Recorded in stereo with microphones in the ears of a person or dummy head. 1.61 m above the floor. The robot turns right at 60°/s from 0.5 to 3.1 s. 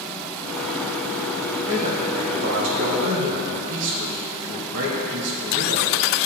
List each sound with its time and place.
1.7 s a man speaking: 145° right, 3.5 m; by 5.9 s 60° right, 3.5 m